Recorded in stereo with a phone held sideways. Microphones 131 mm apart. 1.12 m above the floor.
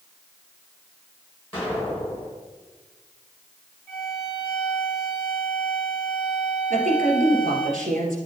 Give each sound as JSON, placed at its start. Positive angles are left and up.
{"t": 1.5, "sound": "an explosion", "side_deg": 15, "distance_m": 3.0}
{"t": 3.9, "sound": "a violin", "side_deg": 25, "distance_m": 1.7}
{"t": 6.7, "sound": "a woman speaking", "side_deg": -85, "distance_m": 2.5}